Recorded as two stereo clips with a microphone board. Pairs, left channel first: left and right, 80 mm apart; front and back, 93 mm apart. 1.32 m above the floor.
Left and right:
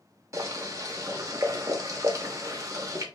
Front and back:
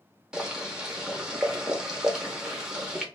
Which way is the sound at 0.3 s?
100° right.